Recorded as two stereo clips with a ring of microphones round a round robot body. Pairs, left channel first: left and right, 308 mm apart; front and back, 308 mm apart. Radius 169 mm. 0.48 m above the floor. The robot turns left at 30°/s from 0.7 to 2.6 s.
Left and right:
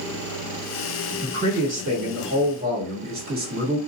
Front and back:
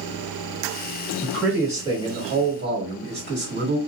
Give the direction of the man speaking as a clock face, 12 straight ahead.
3 o'clock.